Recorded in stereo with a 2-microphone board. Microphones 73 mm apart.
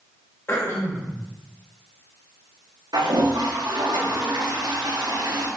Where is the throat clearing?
35° left (ahead or behind), 1.7 m.